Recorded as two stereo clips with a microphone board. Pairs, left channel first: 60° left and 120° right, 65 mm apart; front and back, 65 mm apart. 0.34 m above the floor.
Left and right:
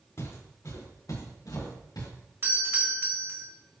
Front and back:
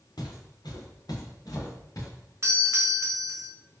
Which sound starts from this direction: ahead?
Footsteps, at 0.2 s.